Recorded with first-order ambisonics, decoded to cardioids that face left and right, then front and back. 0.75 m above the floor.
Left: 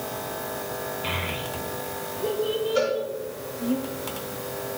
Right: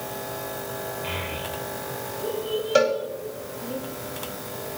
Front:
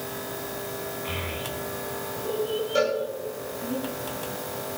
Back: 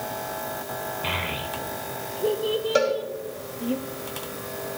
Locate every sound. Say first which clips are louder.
1.0 s a child speaking: left 3 dB, back 6 dB; 165° left, 1.7 m
2.8 s a cowbell: right 5 dB, back 2 dB; 120° right, 4.5 m